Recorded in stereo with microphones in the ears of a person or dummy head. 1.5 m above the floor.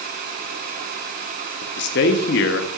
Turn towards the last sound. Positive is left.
turn(degrees=60)  # may be behind; listen again after turning